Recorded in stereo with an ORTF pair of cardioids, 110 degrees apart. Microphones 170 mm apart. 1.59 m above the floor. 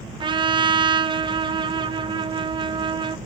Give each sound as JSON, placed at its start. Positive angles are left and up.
{"t": 0.2, "sound": "a trumpet", "azimuth_deg": -25, "distance_m": 0.6}